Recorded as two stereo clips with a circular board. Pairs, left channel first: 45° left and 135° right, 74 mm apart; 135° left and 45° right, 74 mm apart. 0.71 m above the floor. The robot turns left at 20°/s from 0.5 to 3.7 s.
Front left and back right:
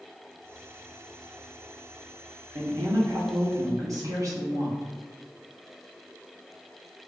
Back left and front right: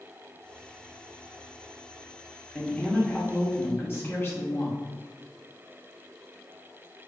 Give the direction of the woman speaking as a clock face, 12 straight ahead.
5 o'clock.